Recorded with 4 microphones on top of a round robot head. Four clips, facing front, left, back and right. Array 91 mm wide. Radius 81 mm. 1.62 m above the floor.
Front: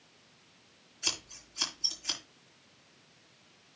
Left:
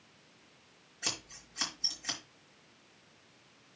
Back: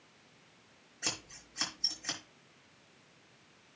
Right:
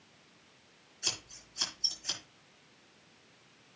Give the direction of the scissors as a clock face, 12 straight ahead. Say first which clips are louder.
Left 3 dB, even; 7 o'clock.